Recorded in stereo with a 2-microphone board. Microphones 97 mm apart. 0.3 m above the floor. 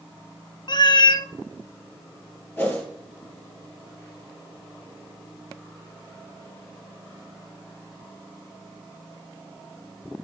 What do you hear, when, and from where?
0.7 s a cat meowing: 50° left (ahead or behind), 0.5 m
2.6 s a whoosh: 20° left (ahead or behind), 5.5 m